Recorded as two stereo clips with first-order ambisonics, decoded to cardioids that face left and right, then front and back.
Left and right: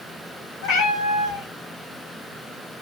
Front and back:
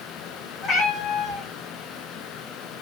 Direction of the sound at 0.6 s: 75° left.